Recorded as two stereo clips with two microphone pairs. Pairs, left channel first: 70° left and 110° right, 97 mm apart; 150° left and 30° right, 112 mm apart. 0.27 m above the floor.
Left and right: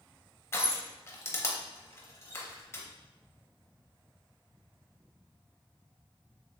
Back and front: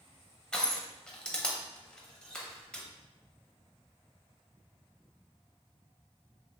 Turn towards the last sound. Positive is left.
turn(degrees=70)